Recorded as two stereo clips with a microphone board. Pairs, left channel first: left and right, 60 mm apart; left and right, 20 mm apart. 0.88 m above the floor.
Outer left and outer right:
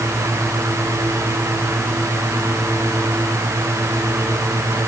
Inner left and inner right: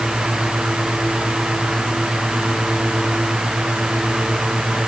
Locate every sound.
Only background noise.